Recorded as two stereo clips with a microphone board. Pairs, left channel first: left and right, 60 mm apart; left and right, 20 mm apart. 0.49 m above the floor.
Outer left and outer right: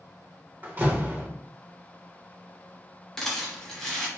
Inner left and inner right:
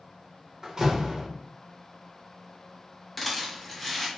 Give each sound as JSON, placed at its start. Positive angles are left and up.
{"t": 0.6, "sound": "a door slam", "side_deg": -30, "distance_m": 0.9}
{"t": 3.2, "sound": "a rattle", "side_deg": 10, "distance_m": 1.1}